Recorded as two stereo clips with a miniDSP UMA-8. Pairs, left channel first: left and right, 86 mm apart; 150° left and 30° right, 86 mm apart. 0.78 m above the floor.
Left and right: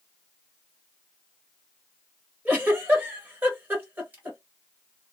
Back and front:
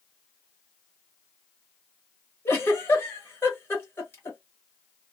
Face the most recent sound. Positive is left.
turn(degrees=-155)